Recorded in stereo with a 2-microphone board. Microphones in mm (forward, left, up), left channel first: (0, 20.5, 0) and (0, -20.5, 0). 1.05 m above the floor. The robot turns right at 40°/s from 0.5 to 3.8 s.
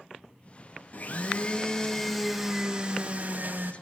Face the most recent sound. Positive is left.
turn(degrees=-115)